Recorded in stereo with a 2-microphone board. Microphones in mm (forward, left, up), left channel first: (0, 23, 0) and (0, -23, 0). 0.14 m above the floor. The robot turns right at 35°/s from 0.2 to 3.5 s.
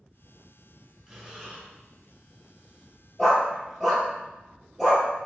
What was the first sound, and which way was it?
Breathing, 5° right (ahead or behind).